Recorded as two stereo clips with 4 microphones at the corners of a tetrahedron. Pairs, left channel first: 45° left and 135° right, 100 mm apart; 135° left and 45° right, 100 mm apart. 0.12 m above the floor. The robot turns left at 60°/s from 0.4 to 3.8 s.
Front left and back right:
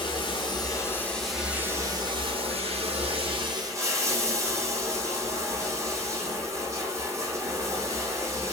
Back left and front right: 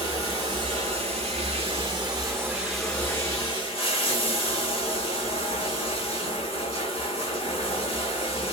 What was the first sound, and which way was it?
Running water, 5° left.